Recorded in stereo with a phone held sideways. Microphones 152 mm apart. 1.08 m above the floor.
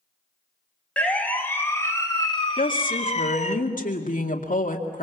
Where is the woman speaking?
65° left (ahead or behind), 2 m.